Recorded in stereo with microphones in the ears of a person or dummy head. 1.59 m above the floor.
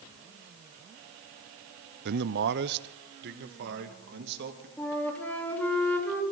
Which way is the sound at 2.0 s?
55° right (ahead or behind).